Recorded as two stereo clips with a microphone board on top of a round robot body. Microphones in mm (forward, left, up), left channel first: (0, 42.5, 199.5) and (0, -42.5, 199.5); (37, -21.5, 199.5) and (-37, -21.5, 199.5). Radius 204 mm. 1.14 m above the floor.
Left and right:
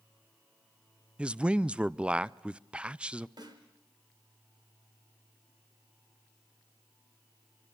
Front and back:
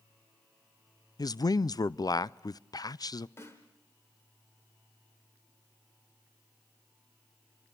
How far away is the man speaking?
About 0.5 m.